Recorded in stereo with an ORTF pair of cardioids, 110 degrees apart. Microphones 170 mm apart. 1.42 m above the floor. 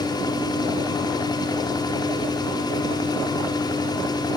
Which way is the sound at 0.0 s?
25° left.